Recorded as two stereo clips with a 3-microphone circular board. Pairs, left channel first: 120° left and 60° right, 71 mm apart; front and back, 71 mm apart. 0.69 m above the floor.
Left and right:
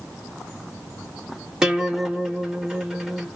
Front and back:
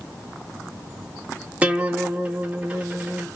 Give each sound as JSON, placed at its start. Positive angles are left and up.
{"t": 1.6, "sound": "a guitar", "azimuth_deg": -130, "distance_m": 0.9}